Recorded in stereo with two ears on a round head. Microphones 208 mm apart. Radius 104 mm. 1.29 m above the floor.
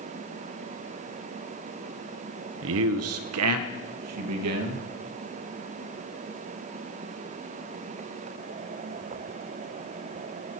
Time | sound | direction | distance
2.6 | a man speaking | 60° right (ahead or behind) | 0.7 m